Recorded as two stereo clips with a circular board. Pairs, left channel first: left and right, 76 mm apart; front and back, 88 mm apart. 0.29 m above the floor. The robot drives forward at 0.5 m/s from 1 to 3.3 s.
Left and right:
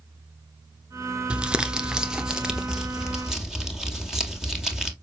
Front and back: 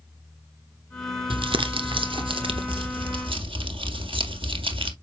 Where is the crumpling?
165° right, 0.9 m; by 4.9 s 175° right, 1.9 m.